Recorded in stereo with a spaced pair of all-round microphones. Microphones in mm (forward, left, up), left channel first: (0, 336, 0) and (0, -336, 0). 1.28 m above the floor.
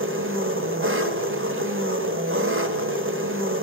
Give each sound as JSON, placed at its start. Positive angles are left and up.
{"t": 0.0, "sound": "an engine running", "side_deg": -20, "distance_m": 1.3}